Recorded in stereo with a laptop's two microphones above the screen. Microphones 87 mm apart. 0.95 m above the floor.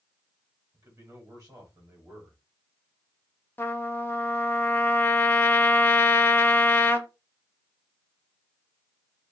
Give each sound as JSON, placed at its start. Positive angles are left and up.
{"t": 0.7, "sound": "a man speaking", "side_deg": -40, "distance_m": 1.8}
{"t": 3.6, "sound": "a trumpet", "side_deg": 25, "distance_m": 0.5}